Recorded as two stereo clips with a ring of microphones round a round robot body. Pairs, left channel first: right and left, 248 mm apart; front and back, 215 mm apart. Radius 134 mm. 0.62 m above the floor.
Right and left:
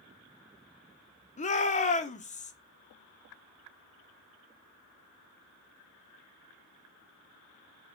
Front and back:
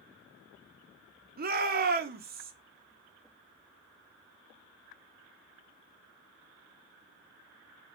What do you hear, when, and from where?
1.4 s a shout: 145° right, 1.4 m